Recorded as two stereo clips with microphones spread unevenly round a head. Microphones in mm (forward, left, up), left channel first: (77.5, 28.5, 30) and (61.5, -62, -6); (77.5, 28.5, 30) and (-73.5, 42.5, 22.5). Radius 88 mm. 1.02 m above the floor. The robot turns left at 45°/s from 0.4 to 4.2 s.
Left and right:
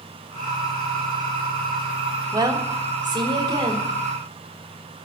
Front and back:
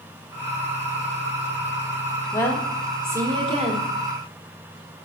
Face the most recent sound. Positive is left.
turn(degrees=-160)